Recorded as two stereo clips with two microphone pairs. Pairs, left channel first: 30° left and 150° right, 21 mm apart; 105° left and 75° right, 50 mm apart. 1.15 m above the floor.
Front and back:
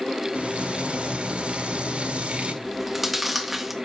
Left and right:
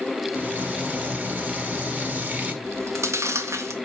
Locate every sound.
0.3 s frying: 130° right, 2.5 m
2.6 s chewing: 65° right, 1.9 m